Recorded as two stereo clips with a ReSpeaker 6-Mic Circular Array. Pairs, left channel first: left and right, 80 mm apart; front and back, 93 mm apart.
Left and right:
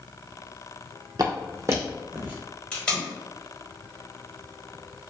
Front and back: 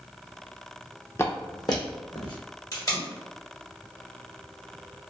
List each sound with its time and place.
1.2 s footsteps: 60° right, 0.6 m; by 2.4 s 25° right, 1.1 m
2.7 s tape being pulled: 20° left, 1.4 m